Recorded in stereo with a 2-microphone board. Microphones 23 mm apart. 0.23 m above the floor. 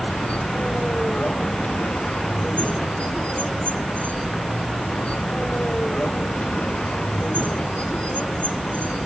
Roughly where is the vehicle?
Left.